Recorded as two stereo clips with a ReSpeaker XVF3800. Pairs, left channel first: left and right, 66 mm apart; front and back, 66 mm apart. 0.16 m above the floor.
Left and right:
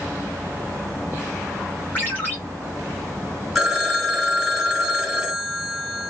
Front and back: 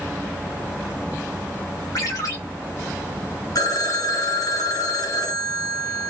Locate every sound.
1.9 s a ringtone: 25° left, 3.5 m
3.5 s a phone ringing: 5° right, 1.7 m